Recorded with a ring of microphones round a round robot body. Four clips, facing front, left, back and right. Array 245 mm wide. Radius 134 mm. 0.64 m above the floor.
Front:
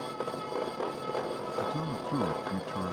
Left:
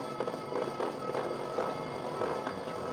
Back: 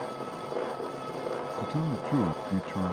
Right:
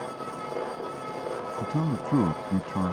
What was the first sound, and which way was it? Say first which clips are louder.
A man speaking: right 7 dB, front 1 dB; 110° right.